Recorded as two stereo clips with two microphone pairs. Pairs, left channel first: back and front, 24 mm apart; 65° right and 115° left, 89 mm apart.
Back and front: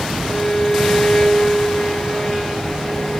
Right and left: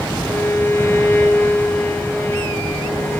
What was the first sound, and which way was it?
A violin, 125° right.